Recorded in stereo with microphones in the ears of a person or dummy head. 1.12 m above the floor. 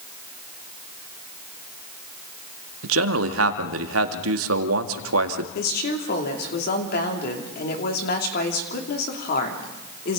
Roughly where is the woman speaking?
Left.